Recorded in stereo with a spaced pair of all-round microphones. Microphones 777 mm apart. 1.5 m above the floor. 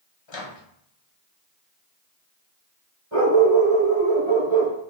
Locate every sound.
0.3 s a microwave: 40° left (ahead or behind), 0.8 m
3.1 s a dog barking: 40° right (ahead or behind), 2 m